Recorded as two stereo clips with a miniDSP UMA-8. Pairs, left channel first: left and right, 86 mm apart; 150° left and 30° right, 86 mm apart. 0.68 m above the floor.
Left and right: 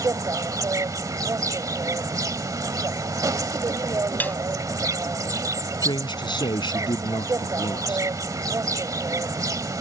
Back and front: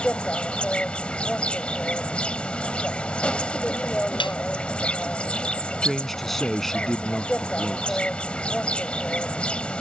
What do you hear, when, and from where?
0.0 s an insect: 135° right
4.2 s a snare drum: 160° left
5.8 s a man speaking: 60° left